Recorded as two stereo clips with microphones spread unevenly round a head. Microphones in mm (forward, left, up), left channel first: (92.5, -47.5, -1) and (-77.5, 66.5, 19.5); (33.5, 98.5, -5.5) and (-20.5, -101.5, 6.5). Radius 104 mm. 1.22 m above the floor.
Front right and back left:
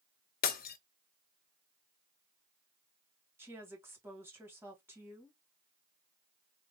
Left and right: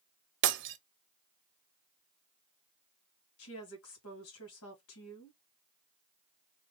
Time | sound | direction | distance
0.4 | breaking glass | 85° right | 0.6 m
3.4 | a woman speaking | 65° left | 1.9 m